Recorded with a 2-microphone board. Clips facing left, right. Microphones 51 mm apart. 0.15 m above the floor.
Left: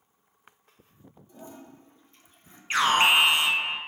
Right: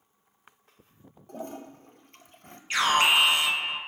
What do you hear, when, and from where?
1.3 s a toilet flushing: 60° right (ahead or behind), 0.7 m
2.7 s an alarm: 30° left (ahead or behind), 1.4 m